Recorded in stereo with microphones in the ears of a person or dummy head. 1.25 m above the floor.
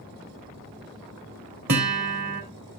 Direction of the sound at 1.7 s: 50° right (ahead or behind).